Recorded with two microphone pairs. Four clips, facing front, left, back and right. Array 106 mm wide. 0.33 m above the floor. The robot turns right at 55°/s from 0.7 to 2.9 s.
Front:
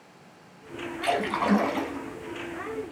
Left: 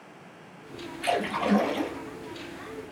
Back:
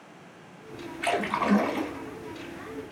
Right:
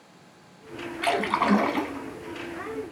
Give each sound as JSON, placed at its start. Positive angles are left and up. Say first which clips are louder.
{"t": 1.0, "sound": "a splash", "louder": "right 3 dB, front 1 dB", "azimuth_deg": -115, "distance_m": 0.8}